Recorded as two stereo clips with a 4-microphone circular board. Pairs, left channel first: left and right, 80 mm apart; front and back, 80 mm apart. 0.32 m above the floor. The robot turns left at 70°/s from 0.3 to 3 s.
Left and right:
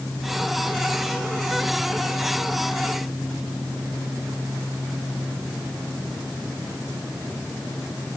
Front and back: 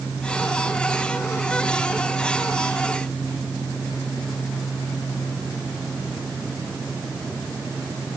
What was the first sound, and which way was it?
Only background noise.